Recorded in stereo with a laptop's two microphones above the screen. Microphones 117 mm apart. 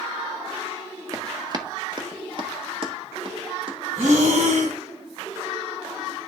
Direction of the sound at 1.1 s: 30° right (ahead or behind).